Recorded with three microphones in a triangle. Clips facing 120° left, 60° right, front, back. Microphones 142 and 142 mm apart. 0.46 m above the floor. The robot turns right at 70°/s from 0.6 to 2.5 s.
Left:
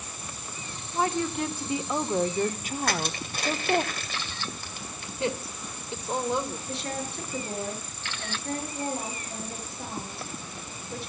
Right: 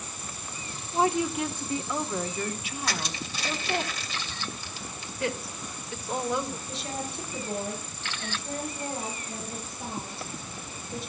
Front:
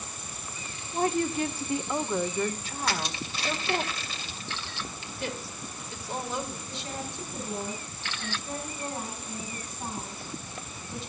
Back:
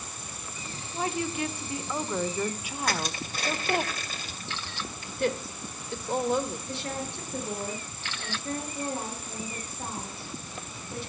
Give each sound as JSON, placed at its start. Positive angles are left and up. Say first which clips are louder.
{"t": 0.9, "sound": "a woman speaking", "louder": "right 2 dB, front 4 dB", "azimuth_deg": -5, "distance_m": 1.0}
{"t": 2.8, "sound": "crushing", "louder": "left 4 dB, back 1 dB", "azimuth_deg": 145, "distance_m": 2.5}
{"t": 5.2, "sound": "a woman speaking", "louder": "left 2 dB, back 7 dB", "azimuth_deg": 180, "distance_m": 2.0}
{"t": 6.7, "sound": "a woman speaking", "louder": "left 1 dB, back 3 dB", "azimuth_deg": 150, "distance_m": 7.0}